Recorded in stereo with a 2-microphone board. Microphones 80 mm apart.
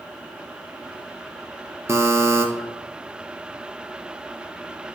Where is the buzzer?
35° right (ahead or behind), 1.3 m.